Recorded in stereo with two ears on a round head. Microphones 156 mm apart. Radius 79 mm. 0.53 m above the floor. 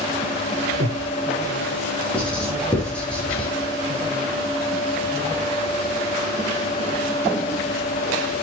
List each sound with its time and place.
0.8 s breathing: 70° right (ahead or behind), 2.5 m
2.1 s writing: 5° left (ahead or behind), 5.5 m